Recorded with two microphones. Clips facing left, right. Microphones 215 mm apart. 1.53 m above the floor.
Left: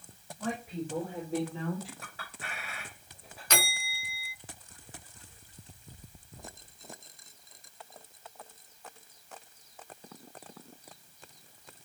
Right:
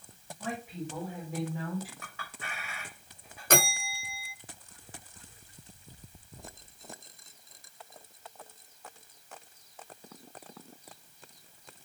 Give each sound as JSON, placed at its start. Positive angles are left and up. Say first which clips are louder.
{"t": 0.4, "sound": "a woman speaking", "louder": "left 2 dB", "side_deg": 45, "distance_m": 5.0}
{"t": 2.0, "sound": "a clink", "louder": "even", "side_deg": 35, "distance_m": 6.0}
{"t": 3.5, "sound": "a bell", "louder": "right 7 dB", "side_deg": -50, "distance_m": 0.6}